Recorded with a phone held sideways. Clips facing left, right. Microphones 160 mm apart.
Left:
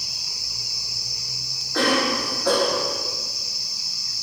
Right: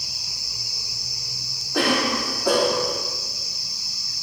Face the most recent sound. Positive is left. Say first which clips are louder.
# even
turn(degrees=-15)  # may be behind; listen again after turning